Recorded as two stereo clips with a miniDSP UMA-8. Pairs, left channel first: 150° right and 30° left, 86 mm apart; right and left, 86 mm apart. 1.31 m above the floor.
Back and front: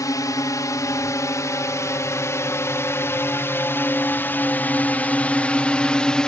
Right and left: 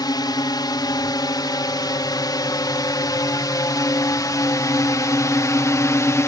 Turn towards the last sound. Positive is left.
turn(degrees=-75)